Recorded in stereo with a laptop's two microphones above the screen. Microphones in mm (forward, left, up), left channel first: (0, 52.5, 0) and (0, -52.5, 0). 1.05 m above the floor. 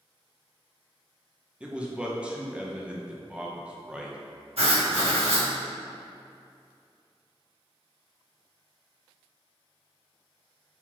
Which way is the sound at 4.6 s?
70° right (ahead or behind).